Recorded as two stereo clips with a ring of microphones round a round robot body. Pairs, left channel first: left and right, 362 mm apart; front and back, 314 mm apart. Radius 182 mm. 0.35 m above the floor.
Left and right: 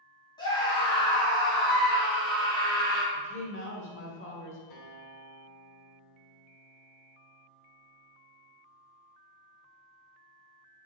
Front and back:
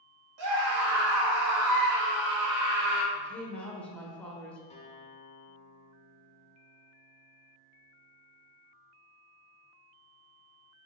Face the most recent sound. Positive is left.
turn(degrees=65)